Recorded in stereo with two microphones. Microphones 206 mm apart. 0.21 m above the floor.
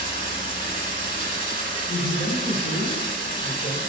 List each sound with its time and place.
0.0 s running water: 45° right (ahead or behind), 2 m
1.9 s a man speaking: 15° left (ahead or behind), 1.9 m